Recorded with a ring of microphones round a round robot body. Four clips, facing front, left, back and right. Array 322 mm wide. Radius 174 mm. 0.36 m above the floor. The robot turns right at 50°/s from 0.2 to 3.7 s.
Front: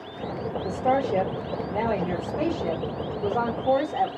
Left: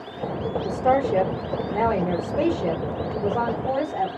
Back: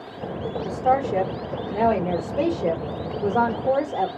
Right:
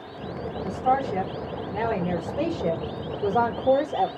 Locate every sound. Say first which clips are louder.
0.6 s a woman speaking: left 3 dB, back 2 dB; 50° left, 1.4 m; by 4.1 s 155° right, 1.4 m